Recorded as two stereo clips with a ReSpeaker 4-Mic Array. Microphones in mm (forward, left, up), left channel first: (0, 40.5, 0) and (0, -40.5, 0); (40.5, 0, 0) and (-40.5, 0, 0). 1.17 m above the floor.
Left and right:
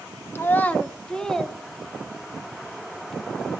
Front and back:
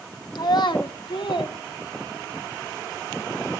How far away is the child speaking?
About 1.4 m.